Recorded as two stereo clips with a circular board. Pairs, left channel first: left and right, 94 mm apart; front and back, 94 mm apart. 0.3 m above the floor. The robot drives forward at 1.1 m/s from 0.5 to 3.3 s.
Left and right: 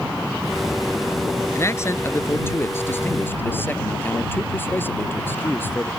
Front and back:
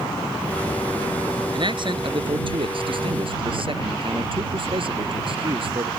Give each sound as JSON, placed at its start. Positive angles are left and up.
{"t": 1.5, "sound": "a man speaking", "azimuth_deg": 150}